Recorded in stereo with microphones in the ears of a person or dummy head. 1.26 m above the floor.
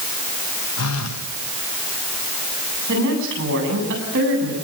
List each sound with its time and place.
0.8 s a phone buzzing: 80° left, 1.3 m
2.9 s a woman speaking: 75° right (ahead or behind), 9.5 m